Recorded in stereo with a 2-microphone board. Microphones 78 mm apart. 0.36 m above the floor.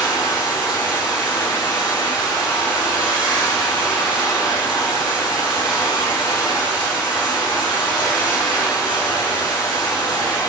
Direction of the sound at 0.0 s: 5° right (ahead or behind).